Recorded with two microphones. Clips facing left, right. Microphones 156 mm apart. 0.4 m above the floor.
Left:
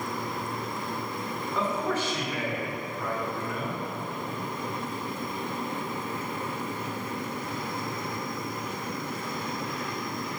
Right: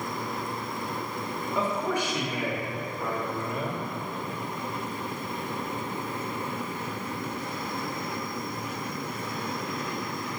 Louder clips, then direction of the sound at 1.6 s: Right 1 dB; 10° right (ahead or behind).